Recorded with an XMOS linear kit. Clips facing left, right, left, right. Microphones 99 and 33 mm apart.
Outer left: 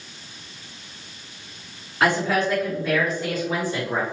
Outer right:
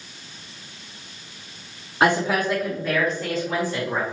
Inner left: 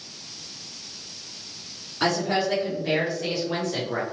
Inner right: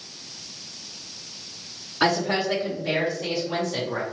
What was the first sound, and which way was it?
A woman speaking, 25° right (ahead or behind).